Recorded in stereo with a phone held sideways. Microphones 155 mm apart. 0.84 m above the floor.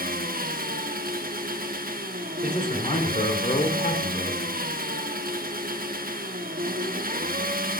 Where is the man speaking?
55° left (ahead or behind), 2.5 m.